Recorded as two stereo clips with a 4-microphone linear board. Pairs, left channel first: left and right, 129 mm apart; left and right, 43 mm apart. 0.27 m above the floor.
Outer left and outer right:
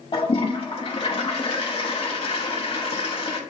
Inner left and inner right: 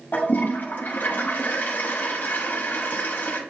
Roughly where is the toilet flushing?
Left.